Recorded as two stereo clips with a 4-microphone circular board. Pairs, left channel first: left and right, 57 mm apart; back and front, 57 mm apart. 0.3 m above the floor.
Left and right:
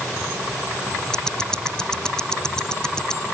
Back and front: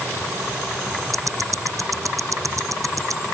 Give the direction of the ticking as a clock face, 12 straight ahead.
12 o'clock.